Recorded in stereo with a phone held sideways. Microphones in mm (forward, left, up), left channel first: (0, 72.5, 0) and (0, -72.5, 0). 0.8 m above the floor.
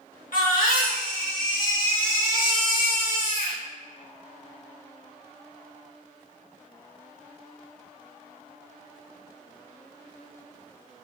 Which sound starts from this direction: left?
A baby crying, at 0.3 s.